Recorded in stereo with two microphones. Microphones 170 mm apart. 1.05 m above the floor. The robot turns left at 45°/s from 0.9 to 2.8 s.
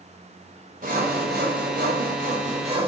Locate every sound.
0.8 s sawing: 60° right, 4 m; by 2.9 s 145° right, 4 m